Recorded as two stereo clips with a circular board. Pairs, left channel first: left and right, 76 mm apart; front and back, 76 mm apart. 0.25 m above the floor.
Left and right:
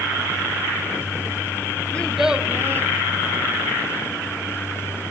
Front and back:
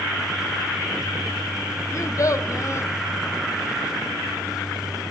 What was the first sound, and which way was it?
A child speaking, 25° left.